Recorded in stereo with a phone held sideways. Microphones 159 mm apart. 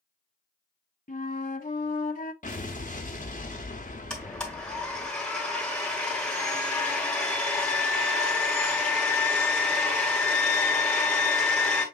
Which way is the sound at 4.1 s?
5° left (ahead or behind).